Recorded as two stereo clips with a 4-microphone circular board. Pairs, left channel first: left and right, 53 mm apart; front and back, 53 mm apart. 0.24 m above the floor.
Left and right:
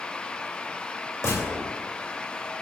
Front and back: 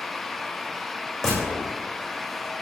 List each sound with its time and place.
1.2 s a gunshot: 80° left, 6.5 m